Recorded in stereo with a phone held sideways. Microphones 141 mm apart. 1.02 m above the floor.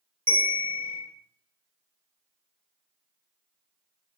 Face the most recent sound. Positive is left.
turn(degrees=-45)  # may be behind; listen again after turning